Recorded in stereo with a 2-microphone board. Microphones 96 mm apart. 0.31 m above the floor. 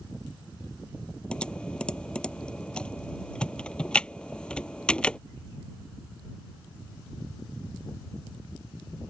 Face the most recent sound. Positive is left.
turn(degrees=10)  # may be behind; listen again after turning